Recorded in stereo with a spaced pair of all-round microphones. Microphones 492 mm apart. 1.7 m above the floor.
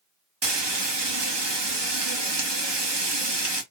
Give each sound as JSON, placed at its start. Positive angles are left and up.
{"t": 0.4, "sound": "frying", "side_deg": -55, "distance_m": 1.0}